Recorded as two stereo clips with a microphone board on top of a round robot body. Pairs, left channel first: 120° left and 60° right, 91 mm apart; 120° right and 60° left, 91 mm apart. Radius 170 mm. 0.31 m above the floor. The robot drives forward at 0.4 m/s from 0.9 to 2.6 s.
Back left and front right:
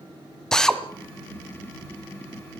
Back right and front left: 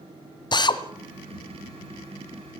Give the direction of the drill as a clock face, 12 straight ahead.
5 o'clock.